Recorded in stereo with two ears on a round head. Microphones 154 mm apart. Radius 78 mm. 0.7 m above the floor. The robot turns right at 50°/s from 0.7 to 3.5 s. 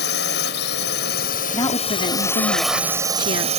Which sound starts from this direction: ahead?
A woman speaking, at 1.5 s.